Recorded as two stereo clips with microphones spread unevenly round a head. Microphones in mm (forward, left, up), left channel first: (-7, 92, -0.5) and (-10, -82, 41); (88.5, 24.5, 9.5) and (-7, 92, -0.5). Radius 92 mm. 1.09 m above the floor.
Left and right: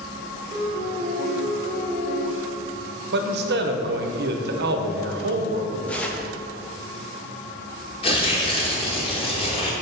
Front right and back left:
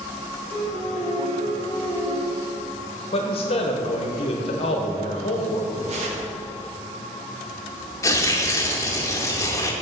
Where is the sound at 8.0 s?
20° left, 1.0 m.